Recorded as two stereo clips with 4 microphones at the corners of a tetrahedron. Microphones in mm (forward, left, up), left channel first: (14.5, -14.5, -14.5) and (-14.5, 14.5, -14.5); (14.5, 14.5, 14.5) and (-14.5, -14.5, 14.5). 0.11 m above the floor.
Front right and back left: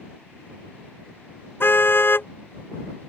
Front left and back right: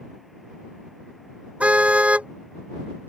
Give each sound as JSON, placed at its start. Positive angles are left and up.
{"t": 1.6, "sound": "a car horn", "azimuth_deg": -80}